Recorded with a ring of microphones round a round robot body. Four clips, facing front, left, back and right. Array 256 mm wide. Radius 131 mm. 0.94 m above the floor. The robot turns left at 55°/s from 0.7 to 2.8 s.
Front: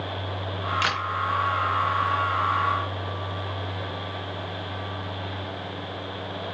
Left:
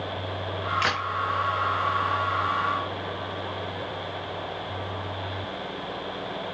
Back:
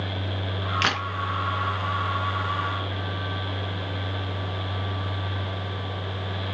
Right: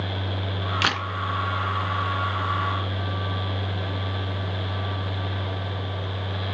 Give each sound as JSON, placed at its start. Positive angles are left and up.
{"t": 0.8, "sound": "a camera shutter", "azimuth_deg": -110, "distance_m": 2.5}